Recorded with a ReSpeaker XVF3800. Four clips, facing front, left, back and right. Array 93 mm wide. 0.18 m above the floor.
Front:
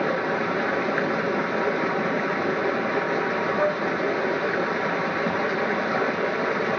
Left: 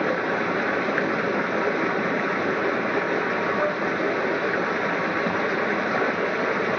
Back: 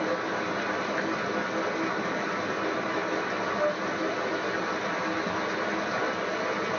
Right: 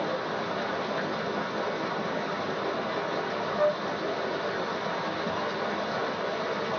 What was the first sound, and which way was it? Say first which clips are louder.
Running water: left 7 dB, front 5 dB; 55° left.